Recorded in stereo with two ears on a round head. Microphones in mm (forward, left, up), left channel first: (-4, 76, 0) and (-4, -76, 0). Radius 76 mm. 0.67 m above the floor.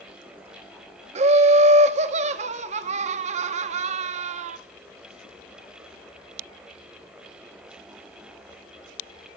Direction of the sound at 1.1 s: 40° right (ahead or behind).